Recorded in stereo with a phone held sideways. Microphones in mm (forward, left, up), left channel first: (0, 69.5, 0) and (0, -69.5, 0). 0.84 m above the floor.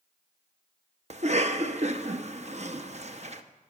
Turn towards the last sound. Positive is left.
turn(degrees=-55)  # may be behind; listen again after turning